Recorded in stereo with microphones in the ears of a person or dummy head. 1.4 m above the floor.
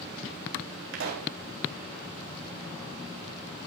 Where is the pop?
65° right (ahead or behind), 3.5 m.